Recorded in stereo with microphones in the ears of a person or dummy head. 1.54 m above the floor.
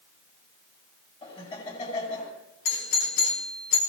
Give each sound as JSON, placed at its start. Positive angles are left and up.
{"t": 1.2, "sound": "laughter", "side_deg": 35, "distance_m": 8.5}
{"t": 2.6, "sound": "a doorbell", "side_deg": 70, "distance_m": 4.5}